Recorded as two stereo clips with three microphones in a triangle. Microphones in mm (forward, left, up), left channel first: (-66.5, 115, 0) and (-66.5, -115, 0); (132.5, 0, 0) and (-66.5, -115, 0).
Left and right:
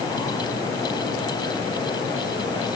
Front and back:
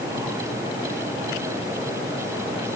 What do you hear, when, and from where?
Only background noise.